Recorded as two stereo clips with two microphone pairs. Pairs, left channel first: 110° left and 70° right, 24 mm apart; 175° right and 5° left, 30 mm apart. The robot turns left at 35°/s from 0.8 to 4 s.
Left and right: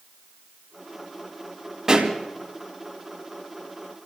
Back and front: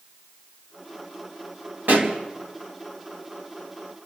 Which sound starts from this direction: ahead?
A pop, at 1.9 s.